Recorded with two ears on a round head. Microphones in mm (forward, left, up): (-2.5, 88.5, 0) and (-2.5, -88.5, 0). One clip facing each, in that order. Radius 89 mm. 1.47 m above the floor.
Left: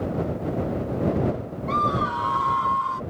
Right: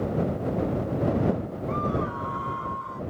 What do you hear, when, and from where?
1.7 s a scream: 80° left; by 3.0 s 75° left (ahead or behind)